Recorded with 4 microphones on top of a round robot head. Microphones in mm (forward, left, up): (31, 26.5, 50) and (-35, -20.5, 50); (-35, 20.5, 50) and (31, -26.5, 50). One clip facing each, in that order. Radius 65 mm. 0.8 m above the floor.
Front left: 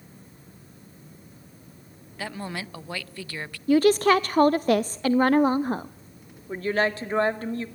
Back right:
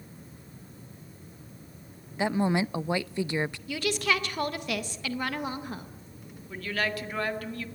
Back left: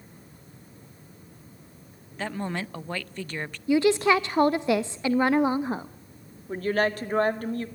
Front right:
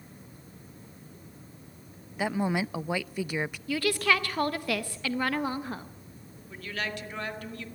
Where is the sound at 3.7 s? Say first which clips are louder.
Front left 13 dB, back left 7 dB; 80° left, 0.6 m.